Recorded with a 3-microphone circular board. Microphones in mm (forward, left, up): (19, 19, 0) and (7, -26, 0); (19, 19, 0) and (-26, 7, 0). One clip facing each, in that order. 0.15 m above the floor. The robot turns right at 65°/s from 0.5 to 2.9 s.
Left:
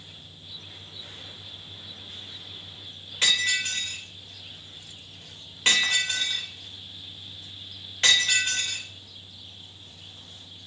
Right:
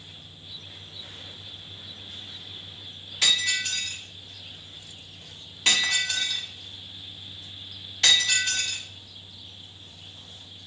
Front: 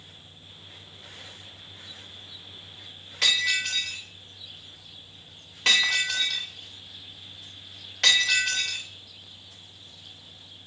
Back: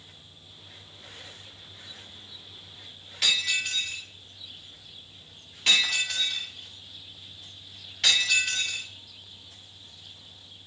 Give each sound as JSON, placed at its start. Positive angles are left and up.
{"t": 3.2, "sound": "breaking glass", "azimuth_deg": 20, "distance_m": 6.0}